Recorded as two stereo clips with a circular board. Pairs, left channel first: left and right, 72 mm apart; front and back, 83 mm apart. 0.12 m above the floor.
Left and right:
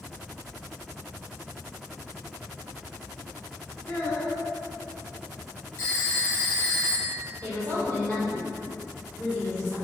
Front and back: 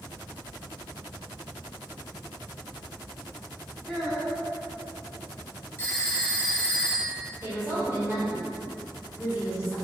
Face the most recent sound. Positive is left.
turn(degrees=145)